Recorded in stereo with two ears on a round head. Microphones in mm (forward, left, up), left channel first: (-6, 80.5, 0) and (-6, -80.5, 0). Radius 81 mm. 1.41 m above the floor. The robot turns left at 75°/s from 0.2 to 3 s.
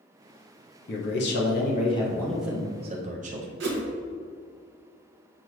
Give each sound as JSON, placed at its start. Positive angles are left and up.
{"t": 0.9, "sound": "a man speaking", "azimuth_deg": 110, "distance_m": 0.6}
{"t": 3.6, "sound": "a whoosh", "side_deg": -65, "distance_m": 0.8}